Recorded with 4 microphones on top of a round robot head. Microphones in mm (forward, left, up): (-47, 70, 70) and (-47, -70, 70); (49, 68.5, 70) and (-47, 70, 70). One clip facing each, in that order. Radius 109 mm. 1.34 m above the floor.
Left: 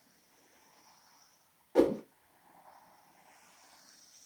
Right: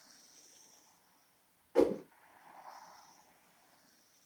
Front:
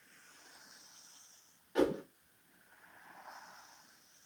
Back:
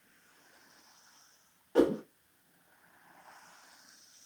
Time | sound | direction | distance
1.8 | a whoosh | 140° left | 0.9 m